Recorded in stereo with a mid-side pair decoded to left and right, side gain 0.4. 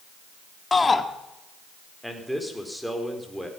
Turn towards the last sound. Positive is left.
turn(degrees=-5)